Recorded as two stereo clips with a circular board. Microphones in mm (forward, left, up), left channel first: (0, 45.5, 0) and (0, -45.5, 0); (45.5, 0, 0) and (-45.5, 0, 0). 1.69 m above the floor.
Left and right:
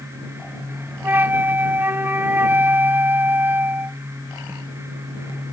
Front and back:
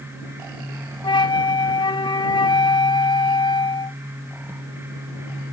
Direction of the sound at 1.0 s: 25° right.